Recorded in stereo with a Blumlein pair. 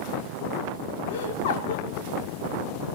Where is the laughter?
50° left, 4 m.